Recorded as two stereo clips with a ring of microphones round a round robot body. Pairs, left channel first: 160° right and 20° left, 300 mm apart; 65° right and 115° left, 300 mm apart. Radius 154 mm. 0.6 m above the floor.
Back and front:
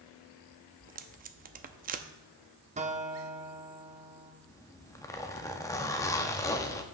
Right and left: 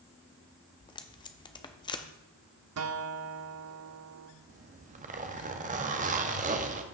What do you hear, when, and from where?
0.8 s tape being pulled: 5° right, 0.6 m
2.8 s a guitar: 85° left, 0.8 m
4.5 s a zipper: 135° left, 0.8 m